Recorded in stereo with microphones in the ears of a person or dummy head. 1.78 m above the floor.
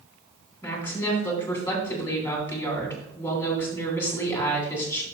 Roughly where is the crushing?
I don't hear crushing.